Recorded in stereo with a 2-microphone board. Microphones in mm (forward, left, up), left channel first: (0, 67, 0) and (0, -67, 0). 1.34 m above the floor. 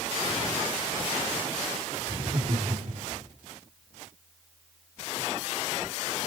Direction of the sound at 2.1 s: 55° right (ahead or behind).